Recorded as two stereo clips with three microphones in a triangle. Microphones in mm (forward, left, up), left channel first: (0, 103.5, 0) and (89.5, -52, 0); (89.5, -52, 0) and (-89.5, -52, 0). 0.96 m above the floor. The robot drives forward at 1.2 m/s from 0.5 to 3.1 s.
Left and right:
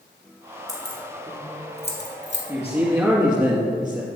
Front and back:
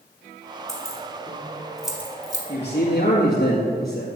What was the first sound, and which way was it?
Keys jangling, 50° left.